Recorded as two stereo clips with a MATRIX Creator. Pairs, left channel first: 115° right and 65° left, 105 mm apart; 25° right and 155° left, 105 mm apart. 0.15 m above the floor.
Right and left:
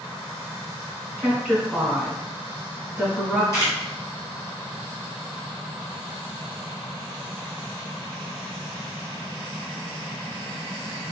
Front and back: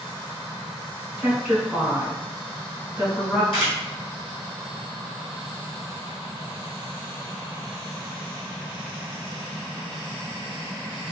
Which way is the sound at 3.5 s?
50° right.